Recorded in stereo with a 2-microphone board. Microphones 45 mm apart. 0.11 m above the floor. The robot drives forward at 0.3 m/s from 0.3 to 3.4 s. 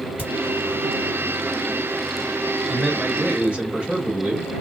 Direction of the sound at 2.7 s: 20° right (ahead or behind).